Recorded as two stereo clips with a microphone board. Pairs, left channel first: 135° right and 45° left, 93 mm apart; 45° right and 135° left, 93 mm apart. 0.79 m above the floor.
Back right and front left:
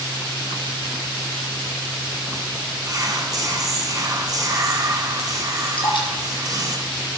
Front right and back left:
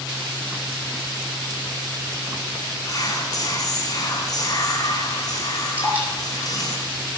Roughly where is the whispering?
Ahead.